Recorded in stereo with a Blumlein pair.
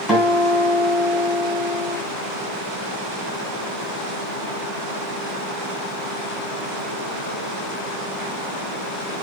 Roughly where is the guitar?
Ahead.